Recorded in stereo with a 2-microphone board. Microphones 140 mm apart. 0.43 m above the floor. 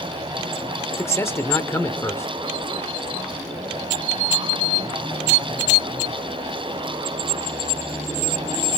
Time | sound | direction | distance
1.0 | a man speaking | 20° left (ahead or behind) | 1.0 m